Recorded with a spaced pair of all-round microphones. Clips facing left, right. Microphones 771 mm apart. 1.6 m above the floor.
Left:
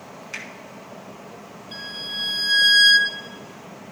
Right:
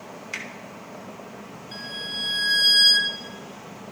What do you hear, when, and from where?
0.3 s a finger snap: 35° right (ahead or behind), 1.8 m
1.7 s a violin: 70° left (ahead or behind), 2 m